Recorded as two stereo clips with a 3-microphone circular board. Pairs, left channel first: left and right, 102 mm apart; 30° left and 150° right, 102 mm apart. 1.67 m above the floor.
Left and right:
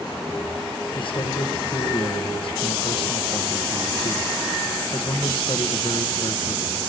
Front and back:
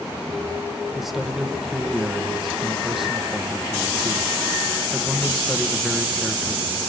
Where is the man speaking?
120° left, 1.9 m.